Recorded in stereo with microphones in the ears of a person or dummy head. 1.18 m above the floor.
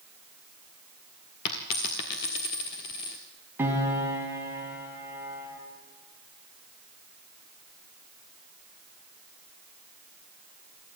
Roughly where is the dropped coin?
Left.